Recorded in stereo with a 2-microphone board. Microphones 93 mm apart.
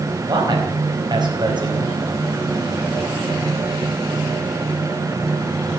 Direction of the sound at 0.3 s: 50° right (ahead or behind).